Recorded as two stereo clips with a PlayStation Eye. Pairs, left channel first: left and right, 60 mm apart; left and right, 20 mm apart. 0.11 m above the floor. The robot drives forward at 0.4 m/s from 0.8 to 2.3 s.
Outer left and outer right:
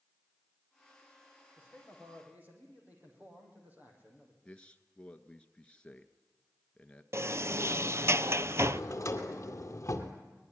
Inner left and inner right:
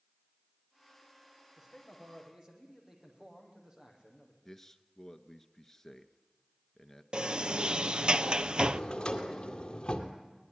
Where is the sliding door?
50° right (ahead or behind), 0.5 m.